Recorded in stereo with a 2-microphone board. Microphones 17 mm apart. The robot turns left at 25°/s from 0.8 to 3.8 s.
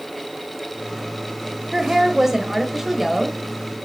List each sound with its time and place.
1.7 s a woman speaking: 115° right, 1.0 m; by 3.4 s 155° right, 1.0 m